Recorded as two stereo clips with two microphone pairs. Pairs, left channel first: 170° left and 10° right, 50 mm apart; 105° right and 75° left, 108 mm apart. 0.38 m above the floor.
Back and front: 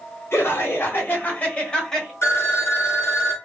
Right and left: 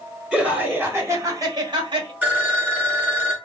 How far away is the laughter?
About 1.4 m.